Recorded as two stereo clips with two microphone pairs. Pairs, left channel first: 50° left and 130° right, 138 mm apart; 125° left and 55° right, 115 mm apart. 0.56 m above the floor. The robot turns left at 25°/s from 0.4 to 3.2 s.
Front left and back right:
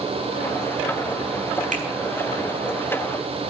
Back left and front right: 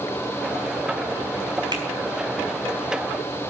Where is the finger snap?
105° right, 5 m.